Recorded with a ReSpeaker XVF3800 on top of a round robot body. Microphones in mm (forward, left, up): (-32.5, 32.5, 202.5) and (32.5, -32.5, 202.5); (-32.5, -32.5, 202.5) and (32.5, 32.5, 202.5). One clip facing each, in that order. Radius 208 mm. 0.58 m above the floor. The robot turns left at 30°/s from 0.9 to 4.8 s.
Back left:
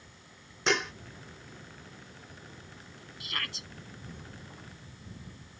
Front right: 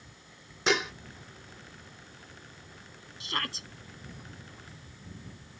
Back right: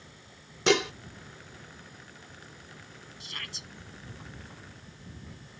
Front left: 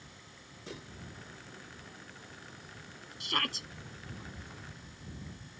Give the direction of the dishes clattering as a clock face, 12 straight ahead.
4 o'clock.